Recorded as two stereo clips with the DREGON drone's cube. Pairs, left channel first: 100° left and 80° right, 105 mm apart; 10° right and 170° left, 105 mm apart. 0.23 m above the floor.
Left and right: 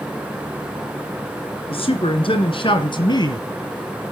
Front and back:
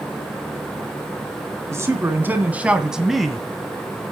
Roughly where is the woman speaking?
Left.